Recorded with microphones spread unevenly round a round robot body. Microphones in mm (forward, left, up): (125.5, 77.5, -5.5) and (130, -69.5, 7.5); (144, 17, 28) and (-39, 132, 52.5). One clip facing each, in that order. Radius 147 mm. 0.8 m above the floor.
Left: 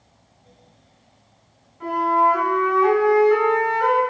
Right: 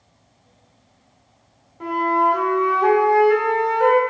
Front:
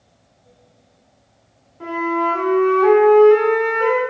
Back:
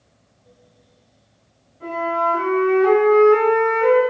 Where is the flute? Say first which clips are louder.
Even, front 3 dB; 60° right, 3 m.